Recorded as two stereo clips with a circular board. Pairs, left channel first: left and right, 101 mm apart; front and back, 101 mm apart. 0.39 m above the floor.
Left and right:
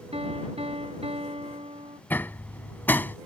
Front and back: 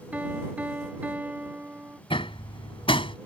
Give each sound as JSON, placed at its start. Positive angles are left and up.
{"t": 0.1, "sound": "a piano", "azimuth_deg": -105}
{"t": 2.1, "sound": "hammering", "azimuth_deg": 20}